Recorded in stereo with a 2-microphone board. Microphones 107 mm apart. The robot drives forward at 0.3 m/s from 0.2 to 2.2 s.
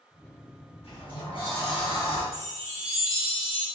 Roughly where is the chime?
Left.